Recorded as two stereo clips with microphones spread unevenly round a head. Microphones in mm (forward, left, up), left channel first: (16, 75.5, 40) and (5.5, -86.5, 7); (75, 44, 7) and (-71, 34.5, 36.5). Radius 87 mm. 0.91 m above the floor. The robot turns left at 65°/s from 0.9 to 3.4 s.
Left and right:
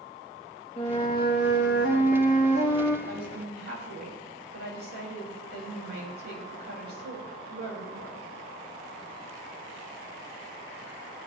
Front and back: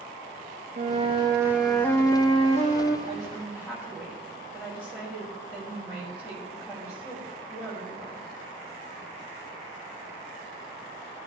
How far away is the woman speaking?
About 5.5 m.